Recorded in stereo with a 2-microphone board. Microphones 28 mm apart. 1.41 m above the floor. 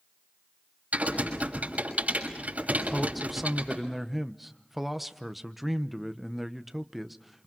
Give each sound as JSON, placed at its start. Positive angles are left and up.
{"t": 0.9, "sound": "typing on a keyboard", "side_deg": -50, "distance_m": 6.0}
{"t": 2.9, "sound": "a man speaking", "side_deg": 0, "distance_m": 1.0}